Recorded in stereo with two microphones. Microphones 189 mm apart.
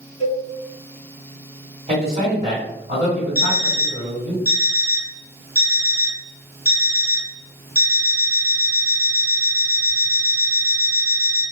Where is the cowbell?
75° right (ahead or behind), 0.7 m.